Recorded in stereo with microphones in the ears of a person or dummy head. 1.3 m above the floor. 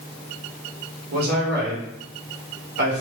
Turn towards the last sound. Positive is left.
turn(degrees=-60)  # may be behind; listen again after turning